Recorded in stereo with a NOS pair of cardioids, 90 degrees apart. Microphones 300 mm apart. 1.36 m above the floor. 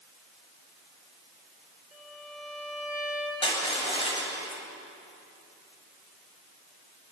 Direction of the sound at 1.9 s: 5° right.